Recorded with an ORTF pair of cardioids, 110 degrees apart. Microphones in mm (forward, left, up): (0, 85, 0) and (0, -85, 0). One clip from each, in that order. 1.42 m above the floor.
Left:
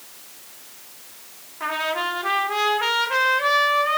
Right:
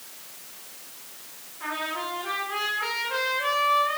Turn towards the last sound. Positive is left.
turn(degrees=50)